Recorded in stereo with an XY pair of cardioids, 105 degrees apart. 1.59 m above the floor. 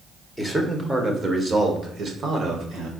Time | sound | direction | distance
0.4 | a man speaking | 10° right | 1.4 m